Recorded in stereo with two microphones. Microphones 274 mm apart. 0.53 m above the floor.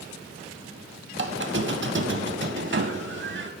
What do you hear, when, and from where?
1.1 s a squeak: 45° right (ahead or behind), 0.6 m